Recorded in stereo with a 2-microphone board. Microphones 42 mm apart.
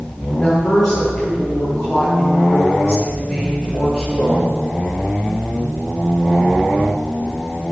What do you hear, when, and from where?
0.3 s a woman speaking: 15° left (ahead or behind), 5 m